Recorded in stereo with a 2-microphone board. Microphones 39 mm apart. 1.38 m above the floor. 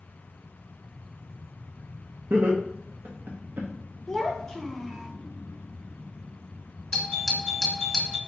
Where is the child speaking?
10° left (ahead or behind), 0.8 m.